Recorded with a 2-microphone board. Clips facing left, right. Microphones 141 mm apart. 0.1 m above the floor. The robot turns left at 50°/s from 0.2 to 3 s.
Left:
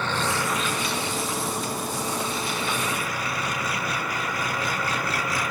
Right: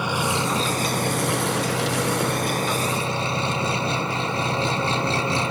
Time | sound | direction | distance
0.0 | an engine running | 10° right | ?